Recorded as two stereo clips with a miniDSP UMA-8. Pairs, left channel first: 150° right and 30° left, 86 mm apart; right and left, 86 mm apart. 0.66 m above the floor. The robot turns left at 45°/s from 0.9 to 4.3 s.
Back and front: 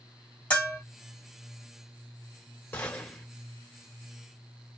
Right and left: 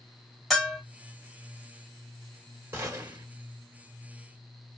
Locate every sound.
0.5 s a bell: 170° right, 1.2 m
2.7 s a gunshot: 150° left, 1.2 m; by 3.2 s 125° left, 1.2 m